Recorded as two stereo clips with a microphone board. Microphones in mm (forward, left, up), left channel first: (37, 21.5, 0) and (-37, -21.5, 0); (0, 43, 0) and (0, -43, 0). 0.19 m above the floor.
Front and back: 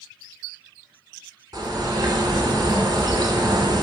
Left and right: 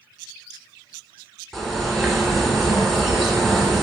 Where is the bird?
Straight behind, 0.9 m.